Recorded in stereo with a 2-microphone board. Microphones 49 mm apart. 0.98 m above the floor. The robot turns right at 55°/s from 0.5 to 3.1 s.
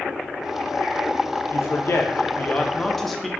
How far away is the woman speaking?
About 0.5 m.